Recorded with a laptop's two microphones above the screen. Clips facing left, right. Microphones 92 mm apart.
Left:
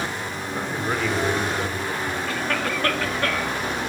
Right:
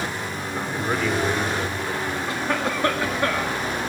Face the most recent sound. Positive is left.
turn(degrees=-20)  # may be behind; listen again after turning